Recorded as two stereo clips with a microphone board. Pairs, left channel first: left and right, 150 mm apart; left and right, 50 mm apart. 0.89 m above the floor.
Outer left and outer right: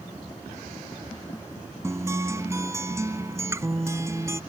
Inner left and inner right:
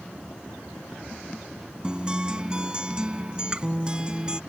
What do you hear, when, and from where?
1.8 s a guitar: 20° right (ahead or behind)